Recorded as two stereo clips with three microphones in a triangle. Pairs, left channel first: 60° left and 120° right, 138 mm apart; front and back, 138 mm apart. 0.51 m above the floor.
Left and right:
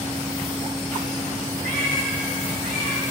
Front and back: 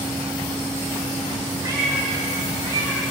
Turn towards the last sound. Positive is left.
turn(degrees=-125)